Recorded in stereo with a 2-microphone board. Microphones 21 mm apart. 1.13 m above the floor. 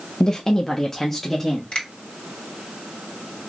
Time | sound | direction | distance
0.2 | a woman speaking | 35° left (ahead or behind) | 0.5 m
1.7 | a finger snap | 55° left (ahead or behind) | 2.5 m